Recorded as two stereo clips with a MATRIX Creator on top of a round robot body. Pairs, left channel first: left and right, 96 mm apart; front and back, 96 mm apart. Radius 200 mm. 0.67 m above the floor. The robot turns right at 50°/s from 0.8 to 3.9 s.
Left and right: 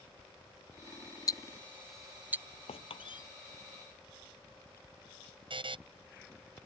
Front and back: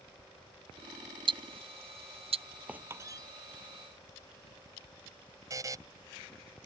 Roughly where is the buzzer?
Behind right.